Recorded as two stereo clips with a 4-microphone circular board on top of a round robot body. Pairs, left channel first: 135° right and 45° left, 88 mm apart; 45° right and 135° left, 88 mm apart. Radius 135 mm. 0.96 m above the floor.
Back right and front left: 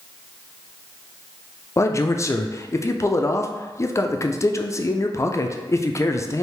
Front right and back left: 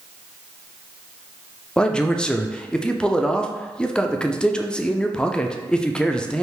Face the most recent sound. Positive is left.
turn(degrees=-120)